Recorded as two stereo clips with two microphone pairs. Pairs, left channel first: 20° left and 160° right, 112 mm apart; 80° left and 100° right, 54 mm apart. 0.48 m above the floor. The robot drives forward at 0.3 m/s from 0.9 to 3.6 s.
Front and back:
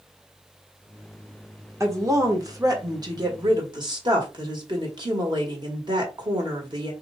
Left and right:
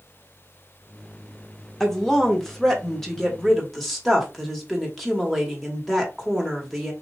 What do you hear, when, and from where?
1.8 s a woman speaking: 160° left, 1.3 m; by 6.9 s 170° left, 1.6 m